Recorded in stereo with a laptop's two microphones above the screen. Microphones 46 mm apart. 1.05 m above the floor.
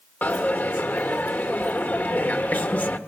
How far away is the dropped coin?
About 1.6 m.